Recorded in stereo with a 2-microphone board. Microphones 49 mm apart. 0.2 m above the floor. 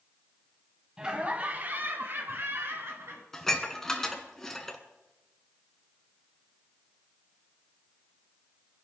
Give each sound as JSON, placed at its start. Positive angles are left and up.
{"t": 1.0, "sound": "laughter", "side_deg": -15, "distance_m": 1.0}
{"t": 3.3, "sound": "dishes clattering", "side_deg": 10, "distance_m": 1.4}